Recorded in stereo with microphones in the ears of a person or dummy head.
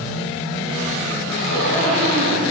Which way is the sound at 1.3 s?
70° right (ahead or behind).